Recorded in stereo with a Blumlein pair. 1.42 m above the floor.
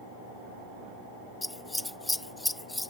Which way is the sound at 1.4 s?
5° left.